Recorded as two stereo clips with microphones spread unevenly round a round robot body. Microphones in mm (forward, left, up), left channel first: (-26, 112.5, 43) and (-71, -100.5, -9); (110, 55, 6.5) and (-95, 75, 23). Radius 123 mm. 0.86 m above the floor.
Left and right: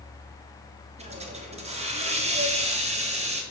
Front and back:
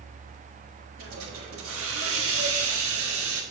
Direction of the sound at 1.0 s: 155° right.